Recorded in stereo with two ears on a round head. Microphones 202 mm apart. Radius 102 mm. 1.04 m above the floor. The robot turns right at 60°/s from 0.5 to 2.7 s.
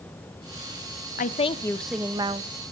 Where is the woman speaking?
140° left, 0.9 m; by 2.5 s 145° right, 0.9 m.